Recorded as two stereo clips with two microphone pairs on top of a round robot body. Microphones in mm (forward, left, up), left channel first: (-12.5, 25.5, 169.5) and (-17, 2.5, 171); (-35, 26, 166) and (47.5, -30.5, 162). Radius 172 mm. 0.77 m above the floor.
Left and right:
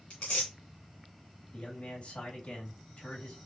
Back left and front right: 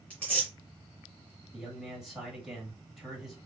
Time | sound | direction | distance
0.1 | tearing paper | 75° left | 0.6 m
1.5 | a man speaking | 50° left | 2 m